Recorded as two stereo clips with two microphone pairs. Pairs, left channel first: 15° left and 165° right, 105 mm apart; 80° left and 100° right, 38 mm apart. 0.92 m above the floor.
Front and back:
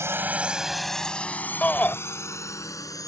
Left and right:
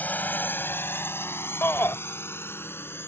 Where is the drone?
130° left; by 3.1 s 70° left.